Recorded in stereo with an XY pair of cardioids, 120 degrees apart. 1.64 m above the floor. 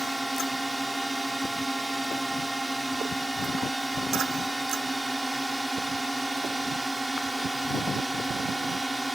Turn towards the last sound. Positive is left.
turn(degrees=-5)